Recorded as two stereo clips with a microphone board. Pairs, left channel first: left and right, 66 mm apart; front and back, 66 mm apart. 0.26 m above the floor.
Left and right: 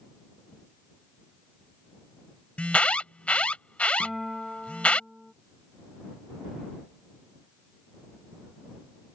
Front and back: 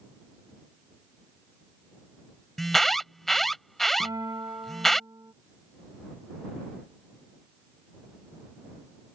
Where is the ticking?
I don't hear ticking.